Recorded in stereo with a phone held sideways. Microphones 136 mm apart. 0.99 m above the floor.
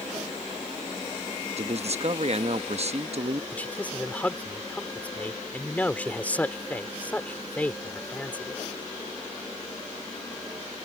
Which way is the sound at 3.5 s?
10° left (ahead or behind).